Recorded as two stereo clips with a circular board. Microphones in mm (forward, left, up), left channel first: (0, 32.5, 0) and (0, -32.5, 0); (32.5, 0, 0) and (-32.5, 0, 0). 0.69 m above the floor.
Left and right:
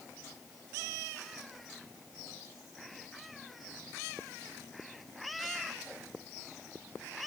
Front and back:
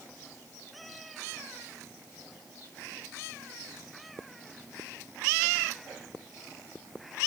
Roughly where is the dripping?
No dripping in this recording.